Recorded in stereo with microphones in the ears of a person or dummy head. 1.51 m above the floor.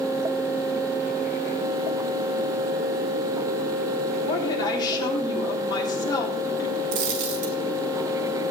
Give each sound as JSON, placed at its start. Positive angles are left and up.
{"t": 4.2, "sound": "a woman speaking", "side_deg": 25, "distance_m": 4.0}
{"t": 6.9, "sound": "a dropped coin", "side_deg": -50, "distance_m": 1.3}